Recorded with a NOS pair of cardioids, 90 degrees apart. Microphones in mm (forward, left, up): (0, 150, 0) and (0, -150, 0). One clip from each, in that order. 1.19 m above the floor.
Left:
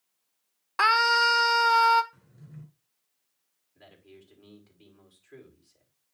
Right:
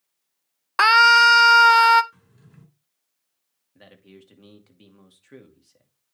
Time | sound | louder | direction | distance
0.8 | a scream | right 8 dB | 35° right | 0.6 m
2.1 | a drawer | left 2 dB | 55° right | 3 m
3.8 | a man speaking | right 4 dB | 65° right | 2.5 m